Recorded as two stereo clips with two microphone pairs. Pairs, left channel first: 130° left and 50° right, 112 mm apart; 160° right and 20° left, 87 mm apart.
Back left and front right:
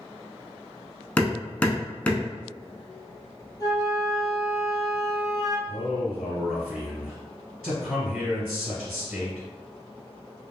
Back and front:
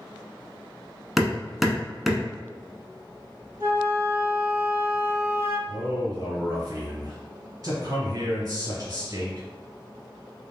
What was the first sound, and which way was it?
Hammering, 85° left.